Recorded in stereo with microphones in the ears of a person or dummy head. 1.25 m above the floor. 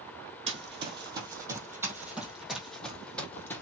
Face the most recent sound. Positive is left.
turn(degrees=15)  # may be behind; listen again after turning